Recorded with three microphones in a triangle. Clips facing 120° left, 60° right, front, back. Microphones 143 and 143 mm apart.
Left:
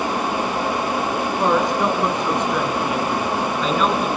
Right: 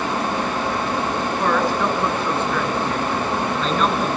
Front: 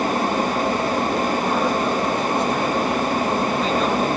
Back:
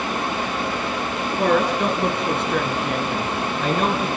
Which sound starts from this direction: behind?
A woman speaking, at 1.4 s.